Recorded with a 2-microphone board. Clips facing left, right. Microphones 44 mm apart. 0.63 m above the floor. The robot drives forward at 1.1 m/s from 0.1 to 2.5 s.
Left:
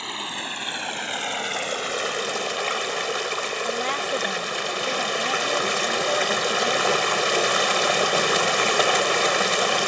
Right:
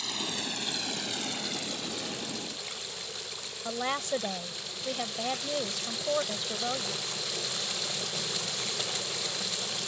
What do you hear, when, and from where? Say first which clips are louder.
0.0 s running water: left 5 dB; 35° left (ahead or behind); by 9.9 s 80° left
3.6 s a woman speaking: left 2 dB; 10° left (ahead or behind)